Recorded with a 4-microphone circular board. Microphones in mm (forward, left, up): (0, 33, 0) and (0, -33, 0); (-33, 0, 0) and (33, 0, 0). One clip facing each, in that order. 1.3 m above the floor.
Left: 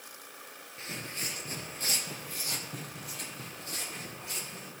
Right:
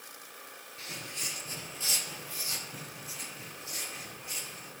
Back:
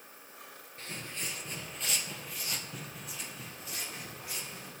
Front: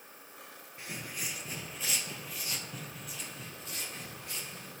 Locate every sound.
0.8 s footsteps: 65° left, 1.4 m; by 4.7 s 95° left, 4 m